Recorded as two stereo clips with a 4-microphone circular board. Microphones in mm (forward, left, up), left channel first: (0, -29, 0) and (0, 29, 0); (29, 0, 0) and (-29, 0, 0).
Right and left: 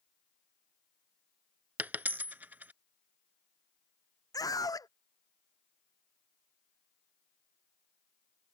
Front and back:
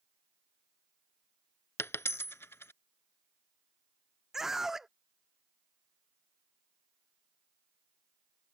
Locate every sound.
1.8 s a dropped coin: 35° left
4.3 s a scream: 95° right